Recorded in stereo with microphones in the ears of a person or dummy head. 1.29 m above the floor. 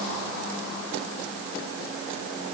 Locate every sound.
Only background noise.